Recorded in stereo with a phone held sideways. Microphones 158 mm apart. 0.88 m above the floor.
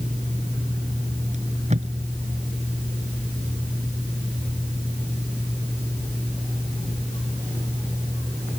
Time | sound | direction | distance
1.3 | tape being pulled | 45° right (ahead or behind) | ?